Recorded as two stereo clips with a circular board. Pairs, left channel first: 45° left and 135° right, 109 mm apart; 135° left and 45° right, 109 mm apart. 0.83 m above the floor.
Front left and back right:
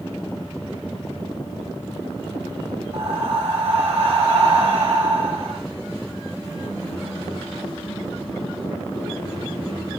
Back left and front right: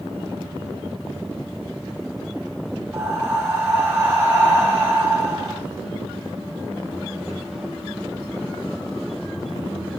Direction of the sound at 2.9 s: 110° right.